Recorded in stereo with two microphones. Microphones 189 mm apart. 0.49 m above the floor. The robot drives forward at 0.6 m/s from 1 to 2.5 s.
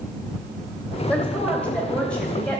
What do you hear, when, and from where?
1.1 s a woman speaking: 5° left (ahead or behind), 3 m